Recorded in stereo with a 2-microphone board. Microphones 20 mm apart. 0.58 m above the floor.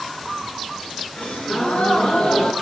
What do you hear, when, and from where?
1.2 s a gasp: 80° left, 2.5 m